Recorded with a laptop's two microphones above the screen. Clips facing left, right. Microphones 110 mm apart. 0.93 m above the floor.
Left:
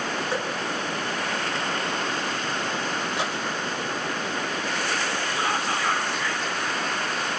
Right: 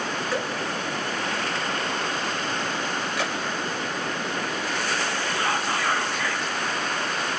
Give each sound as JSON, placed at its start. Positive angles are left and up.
{"t": 0.3, "sound": "dripping", "side_deg": 25, "distance_m": 3.5}
{"t": 3.2, "sound": "a gunshot", "side_deg": 25, "distance_m": 4.5}
{"t": 5.4, "sound": "whispering", "side_deg": 0, "distance_m": 2.5}